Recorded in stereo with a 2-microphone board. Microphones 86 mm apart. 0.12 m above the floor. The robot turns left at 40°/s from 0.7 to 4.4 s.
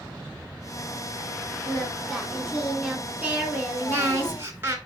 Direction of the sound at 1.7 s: 5° left (ahead or behind).